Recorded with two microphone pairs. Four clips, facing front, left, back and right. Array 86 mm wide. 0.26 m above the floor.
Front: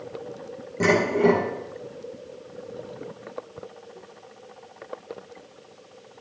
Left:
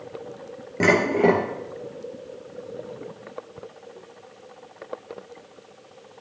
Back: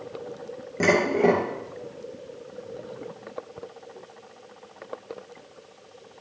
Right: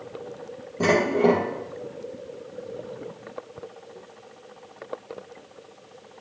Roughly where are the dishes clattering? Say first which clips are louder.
Left 1 dB, front 1 dB; behind left.